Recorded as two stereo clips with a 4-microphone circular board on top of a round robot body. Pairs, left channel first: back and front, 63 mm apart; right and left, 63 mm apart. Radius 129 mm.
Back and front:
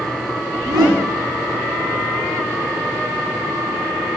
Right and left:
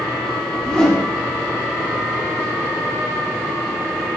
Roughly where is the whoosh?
Ahead.